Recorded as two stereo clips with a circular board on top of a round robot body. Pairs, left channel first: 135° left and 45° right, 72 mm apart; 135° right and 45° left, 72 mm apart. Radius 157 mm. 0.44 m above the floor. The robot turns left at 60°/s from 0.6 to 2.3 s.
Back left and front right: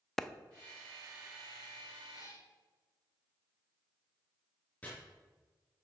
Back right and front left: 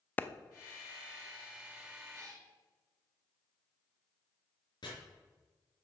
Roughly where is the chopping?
Behind right.